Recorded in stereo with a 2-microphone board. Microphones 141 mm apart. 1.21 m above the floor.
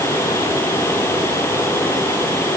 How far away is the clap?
I don't hear a clap.